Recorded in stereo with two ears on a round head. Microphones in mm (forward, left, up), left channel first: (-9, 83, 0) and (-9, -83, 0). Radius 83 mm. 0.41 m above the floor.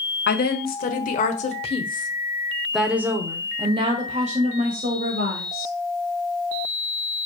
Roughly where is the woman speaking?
Left.